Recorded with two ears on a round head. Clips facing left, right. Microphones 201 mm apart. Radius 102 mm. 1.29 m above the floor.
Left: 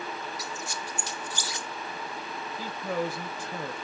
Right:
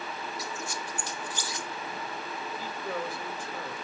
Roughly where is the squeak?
Left.